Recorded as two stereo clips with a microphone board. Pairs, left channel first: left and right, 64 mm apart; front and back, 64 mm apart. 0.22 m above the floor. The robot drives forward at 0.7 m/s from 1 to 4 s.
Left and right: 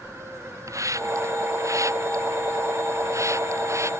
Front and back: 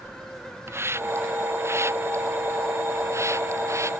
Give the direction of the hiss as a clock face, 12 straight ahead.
4 o'clock.